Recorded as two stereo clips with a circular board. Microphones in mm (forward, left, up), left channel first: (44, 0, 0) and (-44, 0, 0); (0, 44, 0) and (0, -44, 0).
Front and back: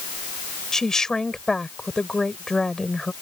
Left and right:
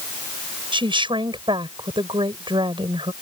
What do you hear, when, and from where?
0.7 s a woman speaking: 85° right